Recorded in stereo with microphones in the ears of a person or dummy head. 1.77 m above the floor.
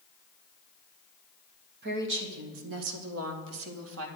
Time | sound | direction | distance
1.8 | a woman speaking | 55° right (ahead or behind) | 1.3 m